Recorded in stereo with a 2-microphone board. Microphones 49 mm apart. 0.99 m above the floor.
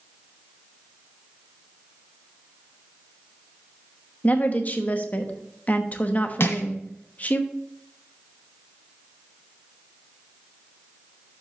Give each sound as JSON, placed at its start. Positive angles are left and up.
{"t": 4.2, "sound": "a woman speaking", "side_deg": 35, "distance_m": 1.0}
{"t": 6.4, "sound": "crushing", "side_deg": 65, "distance_m": 1.7}